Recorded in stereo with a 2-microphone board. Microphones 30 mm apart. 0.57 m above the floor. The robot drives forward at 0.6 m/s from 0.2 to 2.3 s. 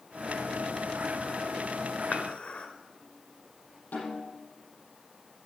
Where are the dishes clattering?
50° left (ahead or behind), 1.4 m; by 2.7 s 45° left (ahead or behind), 1.5 m.